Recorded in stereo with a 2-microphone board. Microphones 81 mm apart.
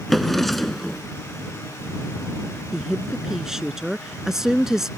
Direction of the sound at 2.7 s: 5° right (ahead or behind).